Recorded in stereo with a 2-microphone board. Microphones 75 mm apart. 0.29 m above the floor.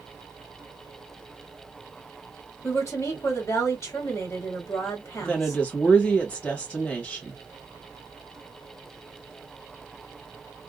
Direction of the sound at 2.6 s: 40° left (ahead or behind).